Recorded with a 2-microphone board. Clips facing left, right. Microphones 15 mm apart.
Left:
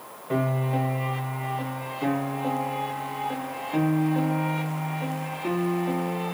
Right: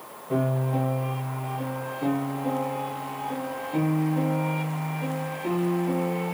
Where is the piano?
40° left (ahead or behind), 0.6 m.